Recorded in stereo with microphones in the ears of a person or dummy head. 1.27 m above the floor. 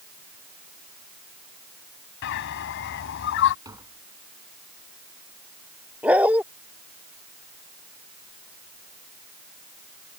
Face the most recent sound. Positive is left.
turn(degrees=-10)  # may be behind; listen again after turning